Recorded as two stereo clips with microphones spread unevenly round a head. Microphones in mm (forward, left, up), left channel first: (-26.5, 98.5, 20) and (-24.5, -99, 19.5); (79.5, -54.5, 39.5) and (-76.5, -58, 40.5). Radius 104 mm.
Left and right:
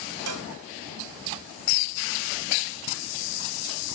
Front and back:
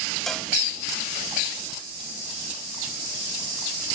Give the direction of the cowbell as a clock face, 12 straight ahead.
3 o'clock.